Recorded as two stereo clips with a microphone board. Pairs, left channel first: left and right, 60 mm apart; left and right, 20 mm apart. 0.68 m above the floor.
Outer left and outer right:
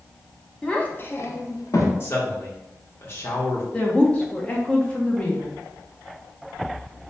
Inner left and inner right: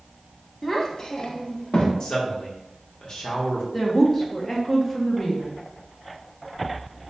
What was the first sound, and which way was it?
A child speaking, 15° left (ahead or behind).